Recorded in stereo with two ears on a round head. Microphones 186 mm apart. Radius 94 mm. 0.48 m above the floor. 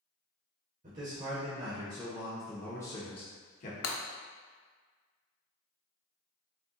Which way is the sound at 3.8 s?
80° left.